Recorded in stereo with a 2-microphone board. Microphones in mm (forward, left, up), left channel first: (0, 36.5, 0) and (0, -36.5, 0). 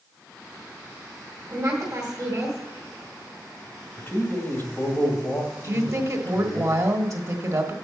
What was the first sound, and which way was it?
A woman speaking, 45° right (ahead or behind).